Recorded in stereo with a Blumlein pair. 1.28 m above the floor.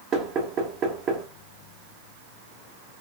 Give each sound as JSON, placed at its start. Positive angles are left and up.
{"t": 0.1, "sound": "knocking", "azimuth_deg": -30, "distance_m": 1.6}